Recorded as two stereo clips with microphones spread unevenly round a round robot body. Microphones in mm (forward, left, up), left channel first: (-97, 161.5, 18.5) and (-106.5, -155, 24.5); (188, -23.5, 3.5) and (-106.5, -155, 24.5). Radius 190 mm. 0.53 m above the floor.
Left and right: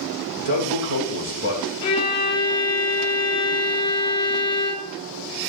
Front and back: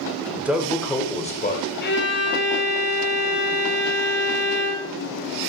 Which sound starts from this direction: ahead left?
A violin, at 1.8 s.